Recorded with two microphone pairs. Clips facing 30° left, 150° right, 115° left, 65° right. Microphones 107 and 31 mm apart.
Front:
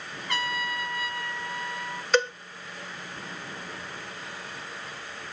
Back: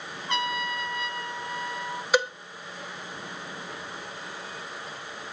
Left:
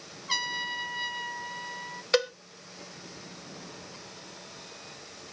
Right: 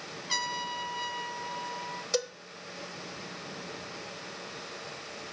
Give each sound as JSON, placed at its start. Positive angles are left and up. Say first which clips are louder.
{"t": 0.3, "sound": "a trumpet", "louder": "back 2 dB, left 2 dB", "azimuth_deg": 160, "distance_m": 1.1}
{"t": 2.1, "sound": "a cowbell", "louder": "front 1 dB, left 6 dB", "azimuth_deg": 135, "distance_m": 0.7}